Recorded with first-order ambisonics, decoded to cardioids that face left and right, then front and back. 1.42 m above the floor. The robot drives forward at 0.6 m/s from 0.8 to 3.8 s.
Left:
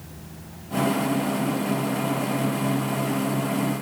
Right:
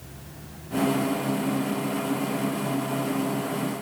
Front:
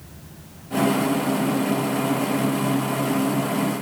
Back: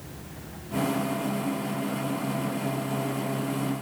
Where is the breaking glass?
No breaking glass in this recording.